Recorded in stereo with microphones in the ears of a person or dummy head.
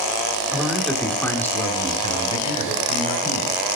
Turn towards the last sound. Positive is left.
turn(degrees=50)  # may be behind; listen again after turning